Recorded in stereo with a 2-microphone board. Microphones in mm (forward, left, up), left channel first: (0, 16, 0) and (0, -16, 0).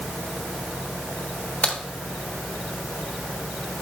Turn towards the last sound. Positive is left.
turn(degrees=55)  # may be behind; listen again after turning